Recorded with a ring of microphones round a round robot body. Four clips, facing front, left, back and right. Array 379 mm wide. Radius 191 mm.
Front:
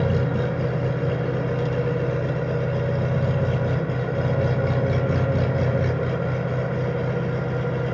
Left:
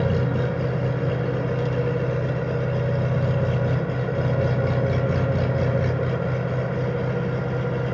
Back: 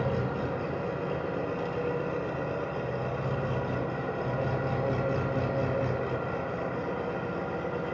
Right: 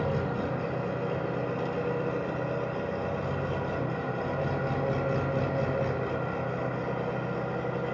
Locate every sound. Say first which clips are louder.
0.0 s an engine running: left 6 dB, front 6 dB; 45° left, 0.9 m